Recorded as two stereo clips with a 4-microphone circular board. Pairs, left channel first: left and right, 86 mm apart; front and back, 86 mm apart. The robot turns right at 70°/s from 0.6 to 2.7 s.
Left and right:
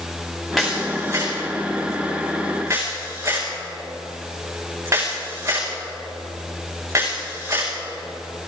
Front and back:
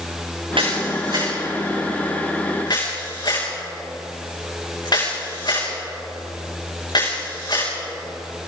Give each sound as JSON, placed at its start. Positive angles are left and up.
{"t": 0.6, "sound": "a camera shutter", "azimuth_deg": 180, "distance_m": 8.0}